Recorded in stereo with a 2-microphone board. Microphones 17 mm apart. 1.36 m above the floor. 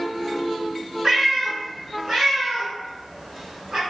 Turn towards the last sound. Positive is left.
turn(degrees=-50)  # may be behind; listen again after turning